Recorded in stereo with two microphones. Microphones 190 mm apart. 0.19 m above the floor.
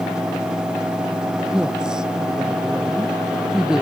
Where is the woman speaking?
5° right (ahead or behind).